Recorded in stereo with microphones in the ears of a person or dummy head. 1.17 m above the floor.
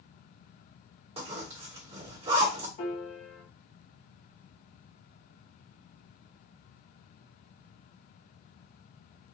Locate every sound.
1.2 s a zipper: 40° right (ahead or behind), 1.2 m
2.8 s a piano: 30° left (ahead or behind), 1.1 m